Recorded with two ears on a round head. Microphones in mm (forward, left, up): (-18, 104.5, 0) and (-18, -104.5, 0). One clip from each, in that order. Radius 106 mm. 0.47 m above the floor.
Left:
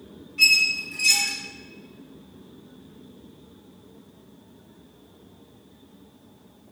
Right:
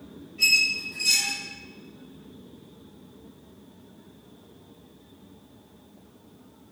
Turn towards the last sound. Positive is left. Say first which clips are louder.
# left 3 dB
turn(degrees=75)  # may be behind; listen again after turning